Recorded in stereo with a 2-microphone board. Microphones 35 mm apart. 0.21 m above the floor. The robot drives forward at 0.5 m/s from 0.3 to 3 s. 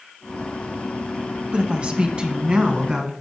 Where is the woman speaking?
35° right (ahead or behind), 1.2 m; by 3.1 s 25° right (ahead or behind), 1.6 m.